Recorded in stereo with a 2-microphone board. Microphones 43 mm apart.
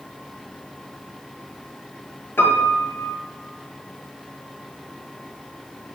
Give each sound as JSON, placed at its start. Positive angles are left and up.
{"t": 2.4, "sound": "a piano", "side_deg": 60, "distance_m": 0.7}